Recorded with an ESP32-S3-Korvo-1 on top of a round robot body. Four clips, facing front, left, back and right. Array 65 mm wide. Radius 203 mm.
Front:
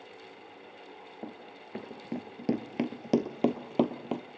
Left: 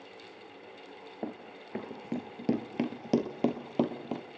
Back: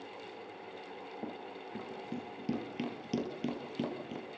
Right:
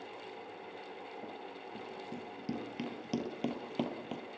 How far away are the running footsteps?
About 1.2 m.